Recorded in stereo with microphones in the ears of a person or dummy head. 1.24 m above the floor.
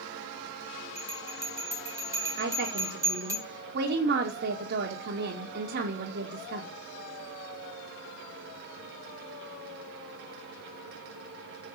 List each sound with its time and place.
0.9 s a bell: 15° right (ahead or behind), 2 m
2.4 s a woman speaking: 60° right (ahead or behind), 1.8 m